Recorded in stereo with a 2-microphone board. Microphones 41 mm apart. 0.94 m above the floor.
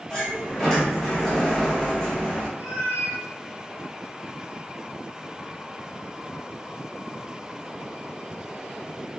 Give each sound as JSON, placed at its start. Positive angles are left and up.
{"t": 0.1, "sound": "a sliding door", "side_deg": 10, "distance_m": 0.9}
{"t": 2.6, "sound": "a cat meowing", "side_deg": -55, "distance_m": 1.0}